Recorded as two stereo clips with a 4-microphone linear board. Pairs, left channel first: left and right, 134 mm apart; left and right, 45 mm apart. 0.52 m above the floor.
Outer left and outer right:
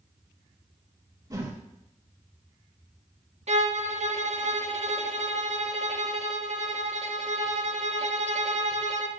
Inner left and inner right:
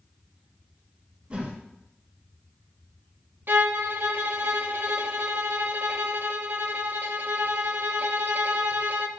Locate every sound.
1.3 s a whoosh: 25° right (ahead or behind), 1.7 m
3.5 s a violin: 60° right (ahead or behind), 0.6 m